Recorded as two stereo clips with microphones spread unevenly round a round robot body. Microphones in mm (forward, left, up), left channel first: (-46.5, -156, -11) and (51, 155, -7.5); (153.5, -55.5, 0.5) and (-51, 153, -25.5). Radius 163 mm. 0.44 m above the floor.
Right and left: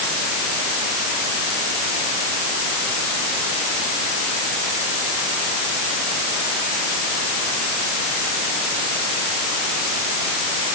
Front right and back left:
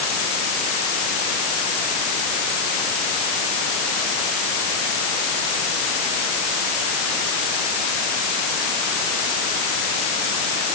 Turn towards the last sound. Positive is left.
No sound to turn to.